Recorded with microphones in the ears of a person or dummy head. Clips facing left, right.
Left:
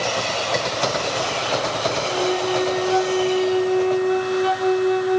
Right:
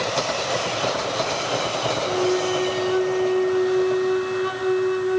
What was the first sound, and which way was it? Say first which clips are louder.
A flute: right 2 dB; 85° left.